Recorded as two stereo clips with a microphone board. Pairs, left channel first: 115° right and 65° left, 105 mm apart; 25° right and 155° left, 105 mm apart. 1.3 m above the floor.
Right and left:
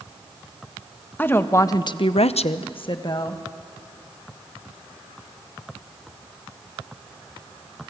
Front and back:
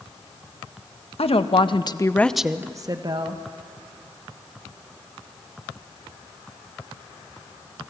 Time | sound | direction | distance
1.2 | a woman speaking | 40° right | 1.6 m